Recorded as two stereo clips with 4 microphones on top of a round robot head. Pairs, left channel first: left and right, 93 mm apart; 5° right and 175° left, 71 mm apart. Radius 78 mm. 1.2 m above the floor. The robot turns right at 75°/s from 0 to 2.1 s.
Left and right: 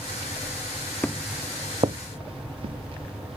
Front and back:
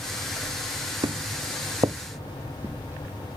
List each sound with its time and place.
1.0 s footsteps: 165° left; by 3.4 s 115° right